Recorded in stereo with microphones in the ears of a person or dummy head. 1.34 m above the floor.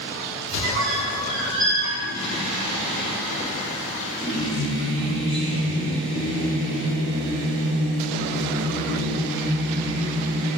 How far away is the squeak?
About 0.5 m.